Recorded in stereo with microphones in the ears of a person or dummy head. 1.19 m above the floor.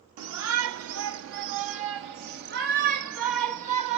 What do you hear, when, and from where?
0.2 s a shout: 85° right, 2.0 m; by 4.0 s 40° right (ahead or behind), 2.5 m